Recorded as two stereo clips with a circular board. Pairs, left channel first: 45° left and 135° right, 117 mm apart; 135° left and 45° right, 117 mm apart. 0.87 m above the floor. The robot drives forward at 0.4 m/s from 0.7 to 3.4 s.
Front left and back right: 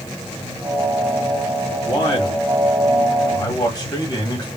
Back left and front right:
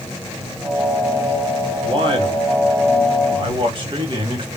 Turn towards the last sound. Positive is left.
turn(degrees=-5)